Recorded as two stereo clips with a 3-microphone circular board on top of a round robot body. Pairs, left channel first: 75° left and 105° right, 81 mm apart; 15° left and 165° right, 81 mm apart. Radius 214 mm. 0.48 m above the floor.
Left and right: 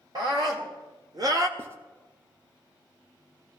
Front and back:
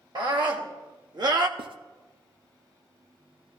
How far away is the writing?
About 0.5 m.